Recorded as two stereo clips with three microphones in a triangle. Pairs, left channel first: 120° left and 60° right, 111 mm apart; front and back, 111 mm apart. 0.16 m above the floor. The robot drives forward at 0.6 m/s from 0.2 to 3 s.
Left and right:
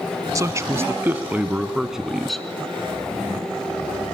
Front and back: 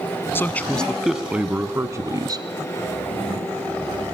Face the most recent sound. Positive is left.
turn(degrees=-160)